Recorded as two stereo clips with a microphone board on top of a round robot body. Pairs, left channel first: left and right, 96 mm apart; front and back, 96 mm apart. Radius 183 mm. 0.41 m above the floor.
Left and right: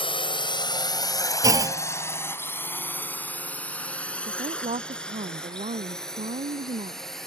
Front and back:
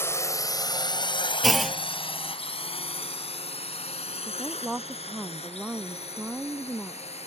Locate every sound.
0.0 s a drone: 65° left; by 7.3 s 5° left
1.4 s a clunk: 90° right
4.3 s a woman speaking: 95° right